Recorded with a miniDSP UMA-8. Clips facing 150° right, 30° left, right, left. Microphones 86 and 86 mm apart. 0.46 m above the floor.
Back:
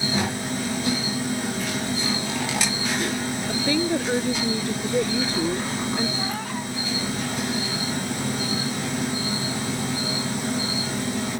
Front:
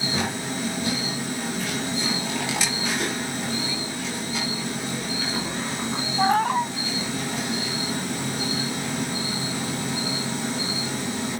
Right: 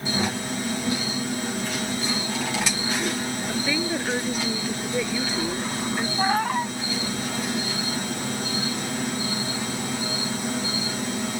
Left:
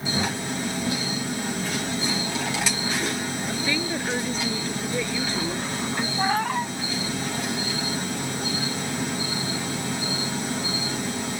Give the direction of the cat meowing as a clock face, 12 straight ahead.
12 o'clock.